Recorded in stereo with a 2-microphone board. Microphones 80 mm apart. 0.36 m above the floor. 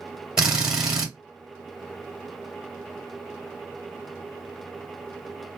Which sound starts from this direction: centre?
A drill, at 0.4 s.